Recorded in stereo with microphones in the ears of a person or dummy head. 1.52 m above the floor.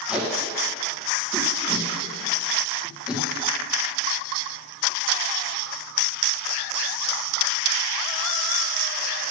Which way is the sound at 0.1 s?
10° right (ahead or behind).